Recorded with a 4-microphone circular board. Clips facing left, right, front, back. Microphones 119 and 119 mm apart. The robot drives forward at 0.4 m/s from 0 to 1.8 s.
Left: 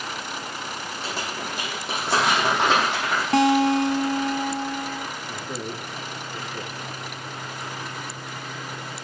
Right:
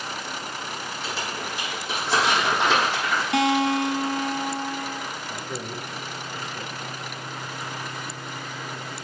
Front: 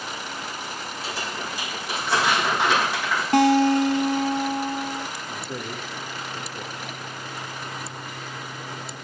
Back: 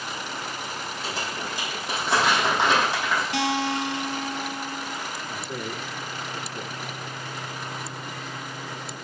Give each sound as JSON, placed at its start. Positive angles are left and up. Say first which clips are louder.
{"t": 1.0, "sound": "crumpling", "louder": "left 1 dB, even", "azimuth_deg": 115, "distance_m": 8.5}
{"t": 3.3, "sound": "a guitar", "louder": "left 4 dB, front 13 dB", "azimuth_deg": 40, "distance_m": 0.7}
{"t": 5.3, "sound": "a man speaking", "louder": "left 1 dB, even", "azimuth_deg": 90, "distance_m": 5.0}